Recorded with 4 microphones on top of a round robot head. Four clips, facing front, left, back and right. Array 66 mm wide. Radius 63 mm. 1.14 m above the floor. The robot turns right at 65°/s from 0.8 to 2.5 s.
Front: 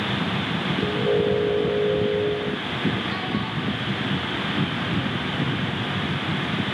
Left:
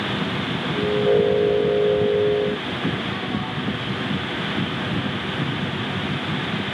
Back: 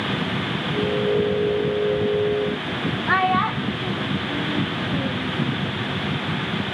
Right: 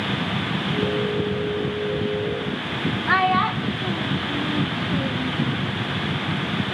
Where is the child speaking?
135° right, 1.0 m.